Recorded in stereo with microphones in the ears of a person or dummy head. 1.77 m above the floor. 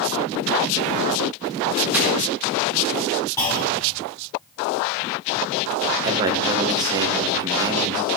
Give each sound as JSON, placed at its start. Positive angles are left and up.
{"t": 1.9, "sound": "crumpling", "side_deg": -5, "distance_m": 3.5}
{"t": 3.4, "sound": "a clunk", "side_deg": 20, "distance_m": 5.5}
{"t": 6.0, "sound": "a man speaking", "side_deg": -15, "distance_m": 1.3}